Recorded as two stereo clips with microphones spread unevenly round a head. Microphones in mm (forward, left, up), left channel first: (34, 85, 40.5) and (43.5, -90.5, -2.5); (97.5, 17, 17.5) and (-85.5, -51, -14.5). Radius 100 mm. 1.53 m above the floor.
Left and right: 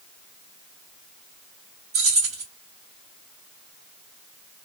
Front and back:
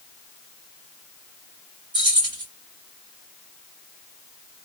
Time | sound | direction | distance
1.9 | keys jangling | 90° right | 1.8 m